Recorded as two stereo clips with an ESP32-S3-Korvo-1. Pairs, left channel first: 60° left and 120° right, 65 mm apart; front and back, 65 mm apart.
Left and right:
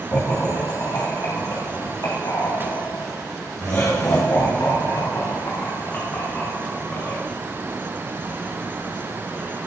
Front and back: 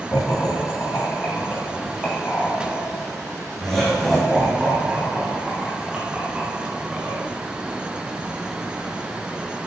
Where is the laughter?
35° left, 3 m; by 7.2 s 110° left, 4 m.